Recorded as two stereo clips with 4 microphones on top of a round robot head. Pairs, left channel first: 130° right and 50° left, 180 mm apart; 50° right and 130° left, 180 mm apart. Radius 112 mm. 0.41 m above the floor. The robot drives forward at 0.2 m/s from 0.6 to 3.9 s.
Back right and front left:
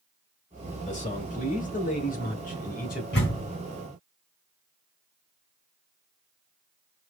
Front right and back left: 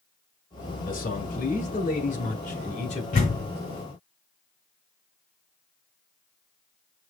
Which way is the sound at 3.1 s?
100° right.